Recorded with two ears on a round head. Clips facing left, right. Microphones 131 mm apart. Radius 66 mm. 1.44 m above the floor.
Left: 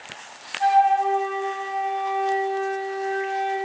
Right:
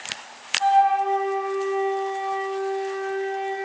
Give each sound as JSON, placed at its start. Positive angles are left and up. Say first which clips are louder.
{"t": 0.6, "sound": "a flute", "louder": "left 1 dB", "side_deg": 20, "distance_m": 9.0}